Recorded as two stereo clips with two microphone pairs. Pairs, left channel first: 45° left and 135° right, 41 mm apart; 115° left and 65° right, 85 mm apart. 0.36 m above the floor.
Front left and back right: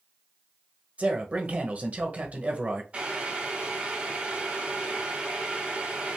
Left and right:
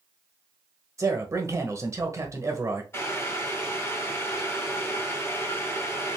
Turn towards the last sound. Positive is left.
turn(degrees=175)